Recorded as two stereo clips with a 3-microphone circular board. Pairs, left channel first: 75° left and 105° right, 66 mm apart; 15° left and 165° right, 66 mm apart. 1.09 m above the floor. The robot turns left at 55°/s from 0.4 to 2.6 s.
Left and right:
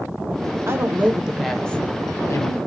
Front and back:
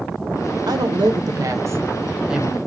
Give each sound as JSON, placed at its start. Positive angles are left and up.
{"t": 0.7, "sound": "a woman speaking", "azimuth_deg": -155, "distance_m": 0.6}